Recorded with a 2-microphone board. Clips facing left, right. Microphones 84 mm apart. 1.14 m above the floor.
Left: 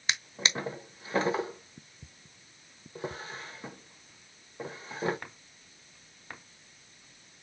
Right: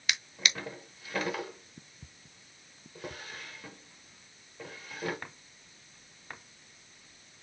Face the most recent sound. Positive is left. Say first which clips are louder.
# left 2 dB
turn(degrees=25)  # may be behind; listen again after turning